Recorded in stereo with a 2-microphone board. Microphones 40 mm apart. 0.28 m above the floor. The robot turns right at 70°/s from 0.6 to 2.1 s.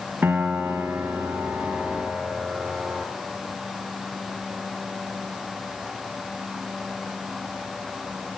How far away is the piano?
About 2.5 m.